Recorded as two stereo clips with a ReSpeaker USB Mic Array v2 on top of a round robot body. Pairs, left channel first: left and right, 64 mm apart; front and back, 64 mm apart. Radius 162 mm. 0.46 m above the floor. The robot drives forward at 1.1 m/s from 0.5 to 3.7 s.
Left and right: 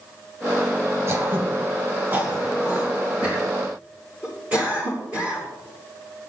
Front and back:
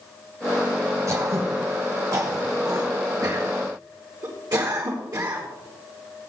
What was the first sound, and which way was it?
Throat clearing, 140° right.